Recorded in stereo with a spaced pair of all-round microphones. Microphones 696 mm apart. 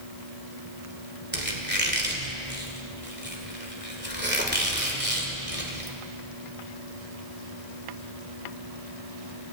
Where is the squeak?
15° right (ahead or behind), 2 m.